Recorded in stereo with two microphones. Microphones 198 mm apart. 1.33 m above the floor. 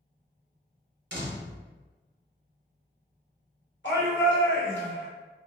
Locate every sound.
1.1 s a door slam: 65° right (ahead or behind), 0.9 m
3.8 s a shout: 70° left (ahead or behind), 1.4 m